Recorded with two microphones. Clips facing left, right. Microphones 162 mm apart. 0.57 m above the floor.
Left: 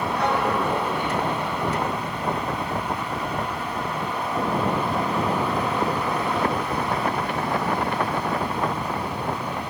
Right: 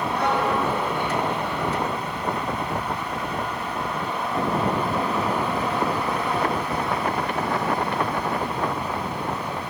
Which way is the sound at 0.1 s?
65° right (ahead or behind).